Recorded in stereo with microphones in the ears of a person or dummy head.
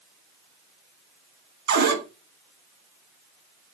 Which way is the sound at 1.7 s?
60° right (ahead or behind).